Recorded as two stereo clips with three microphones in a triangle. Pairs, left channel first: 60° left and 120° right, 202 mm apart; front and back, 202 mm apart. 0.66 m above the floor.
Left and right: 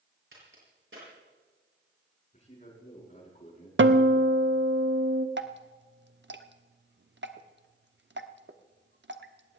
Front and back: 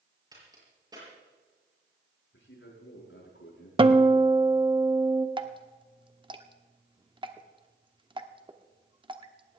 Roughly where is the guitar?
Behind right.